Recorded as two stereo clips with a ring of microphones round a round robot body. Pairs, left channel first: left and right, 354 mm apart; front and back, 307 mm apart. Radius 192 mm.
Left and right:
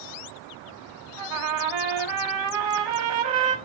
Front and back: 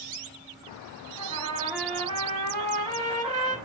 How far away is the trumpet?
About 1.3 m.